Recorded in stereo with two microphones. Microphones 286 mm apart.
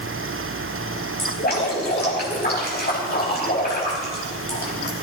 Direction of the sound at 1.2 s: 35° left (ahead or behind).